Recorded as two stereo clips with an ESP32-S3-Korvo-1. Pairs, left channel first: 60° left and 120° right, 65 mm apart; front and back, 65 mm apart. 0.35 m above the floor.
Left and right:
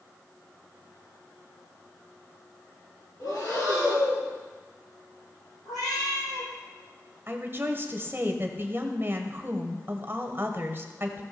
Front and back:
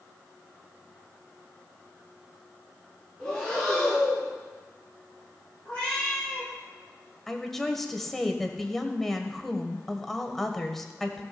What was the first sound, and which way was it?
Breathing, 80° left.